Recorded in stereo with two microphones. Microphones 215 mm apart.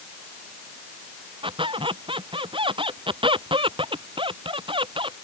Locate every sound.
1.4 s a squeak: 25° right (ahead or behind)